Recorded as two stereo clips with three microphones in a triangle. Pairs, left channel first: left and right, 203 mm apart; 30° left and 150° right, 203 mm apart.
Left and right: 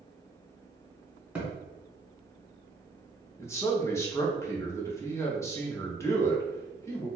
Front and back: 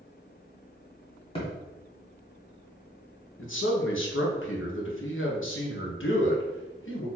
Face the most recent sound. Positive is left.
turn(degrees=15)